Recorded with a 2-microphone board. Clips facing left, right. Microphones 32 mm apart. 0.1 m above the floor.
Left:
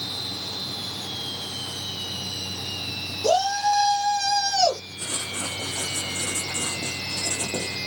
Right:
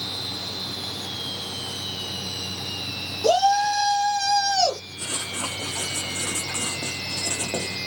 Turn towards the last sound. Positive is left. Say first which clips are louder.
# right 1 dB
turn(degrees=-65)  # may be behind; listen again after turning